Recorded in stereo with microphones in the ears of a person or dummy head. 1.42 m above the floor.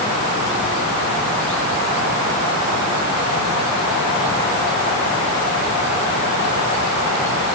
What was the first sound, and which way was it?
Only background noise.